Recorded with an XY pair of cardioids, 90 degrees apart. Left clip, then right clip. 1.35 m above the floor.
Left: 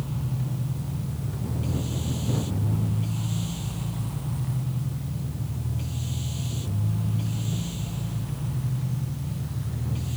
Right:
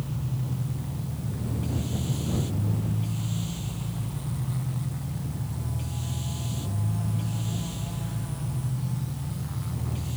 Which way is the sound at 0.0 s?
10° left.